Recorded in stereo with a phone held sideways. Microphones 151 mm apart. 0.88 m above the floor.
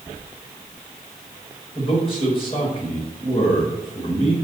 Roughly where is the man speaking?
Left.